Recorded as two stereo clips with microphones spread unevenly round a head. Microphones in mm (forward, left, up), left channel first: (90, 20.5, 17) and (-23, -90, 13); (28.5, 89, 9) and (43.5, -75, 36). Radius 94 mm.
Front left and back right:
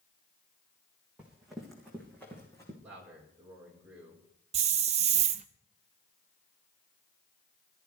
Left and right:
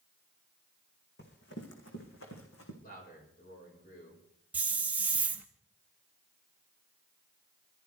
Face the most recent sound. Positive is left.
turn(degrees=-145)